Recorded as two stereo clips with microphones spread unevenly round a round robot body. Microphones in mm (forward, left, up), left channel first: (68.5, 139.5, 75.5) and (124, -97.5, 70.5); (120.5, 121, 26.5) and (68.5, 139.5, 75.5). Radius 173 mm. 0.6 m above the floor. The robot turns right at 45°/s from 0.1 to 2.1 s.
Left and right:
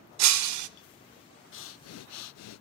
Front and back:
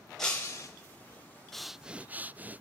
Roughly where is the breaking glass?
Behind right.